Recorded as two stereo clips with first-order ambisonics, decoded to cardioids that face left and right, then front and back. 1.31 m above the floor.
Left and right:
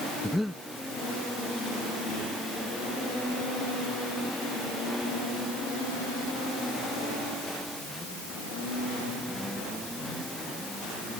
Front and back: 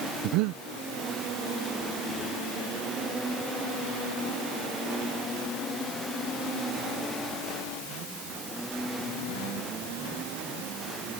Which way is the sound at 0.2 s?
Straight behind.